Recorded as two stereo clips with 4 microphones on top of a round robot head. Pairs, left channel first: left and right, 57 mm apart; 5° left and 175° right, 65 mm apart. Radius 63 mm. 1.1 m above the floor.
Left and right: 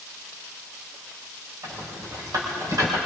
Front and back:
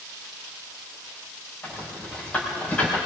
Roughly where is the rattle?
Right.